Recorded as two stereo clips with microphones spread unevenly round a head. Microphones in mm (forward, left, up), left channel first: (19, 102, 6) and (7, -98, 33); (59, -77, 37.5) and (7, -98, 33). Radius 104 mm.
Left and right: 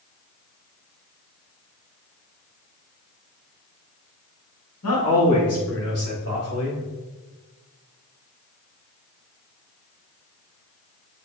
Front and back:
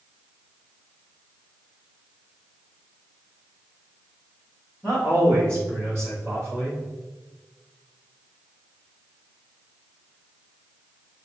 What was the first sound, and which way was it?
A man speaking, 95° left.